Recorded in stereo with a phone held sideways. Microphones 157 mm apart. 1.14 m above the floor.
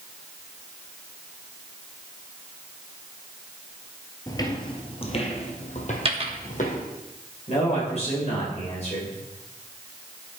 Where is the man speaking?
45° left (ahead or behind), 4 m.